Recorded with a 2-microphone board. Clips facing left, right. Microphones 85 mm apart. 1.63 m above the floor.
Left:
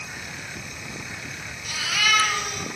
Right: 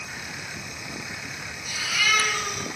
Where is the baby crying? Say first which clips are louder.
Left 1 dB; 65° left (ahead or behind), 4 m.